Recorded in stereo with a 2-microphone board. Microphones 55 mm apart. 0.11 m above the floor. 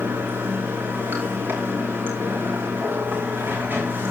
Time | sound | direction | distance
0.0 | running water | 40° right (ahead or behind) | 6 m